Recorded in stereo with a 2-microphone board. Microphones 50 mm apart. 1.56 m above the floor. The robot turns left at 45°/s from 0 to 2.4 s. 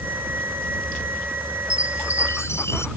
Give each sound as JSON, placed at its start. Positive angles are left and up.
{"t": 1.7, "sound": "a chime", "azimuth_deg": 95}